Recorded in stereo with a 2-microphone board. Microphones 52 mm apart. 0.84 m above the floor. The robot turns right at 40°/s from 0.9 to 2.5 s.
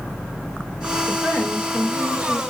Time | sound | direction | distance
1.1 | a woman speaking | 160° right | 3 m